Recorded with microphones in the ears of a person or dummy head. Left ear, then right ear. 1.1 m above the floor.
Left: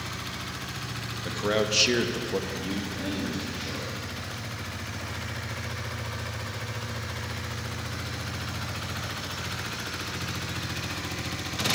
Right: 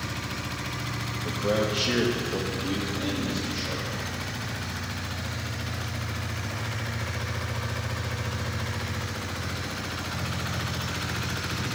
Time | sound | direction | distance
1.2 | a man speaking | 45° left (ahead or behind) | 1.4 m